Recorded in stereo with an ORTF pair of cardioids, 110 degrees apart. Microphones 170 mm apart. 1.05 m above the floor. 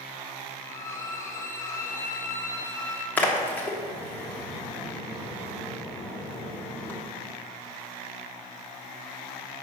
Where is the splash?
10° left, 1.4 m.